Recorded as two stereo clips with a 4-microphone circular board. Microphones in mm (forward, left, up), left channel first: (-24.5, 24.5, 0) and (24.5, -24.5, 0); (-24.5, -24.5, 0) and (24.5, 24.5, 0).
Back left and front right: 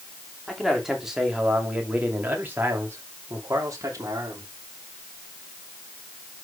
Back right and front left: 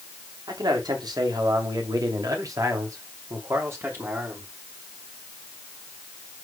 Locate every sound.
0.5 s a man speaking: 45° left, 3 m; by 4.5 s 15° right, 3 m